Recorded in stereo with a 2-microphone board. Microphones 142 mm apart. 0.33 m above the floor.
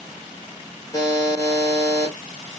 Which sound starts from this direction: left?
A buzzer, at 0.9 s.